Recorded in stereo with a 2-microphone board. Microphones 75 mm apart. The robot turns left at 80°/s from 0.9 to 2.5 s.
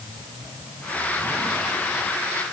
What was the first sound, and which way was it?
Only background noise.